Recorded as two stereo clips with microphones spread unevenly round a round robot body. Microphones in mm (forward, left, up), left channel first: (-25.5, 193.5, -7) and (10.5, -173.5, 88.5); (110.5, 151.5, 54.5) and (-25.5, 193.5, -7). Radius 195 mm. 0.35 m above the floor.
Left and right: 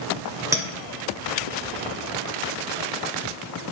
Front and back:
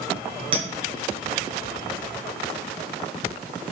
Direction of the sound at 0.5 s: 175° right.